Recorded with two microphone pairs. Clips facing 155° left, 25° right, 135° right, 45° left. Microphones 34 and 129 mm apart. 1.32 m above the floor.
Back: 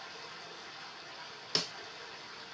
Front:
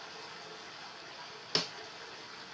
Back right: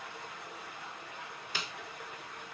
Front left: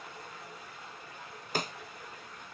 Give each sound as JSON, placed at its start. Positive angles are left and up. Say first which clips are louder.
{"t": 0.0, "sound": "running water", "louder": "even, back right 1 dB", "azimuth_deg": -115, "distance_m": 7.0}
{"t": 1.6, "sound": "a snare drum", "louder": "front 1 dB, front left 9 dB", "azimuth_deg": 55, "distance_m": 0.5}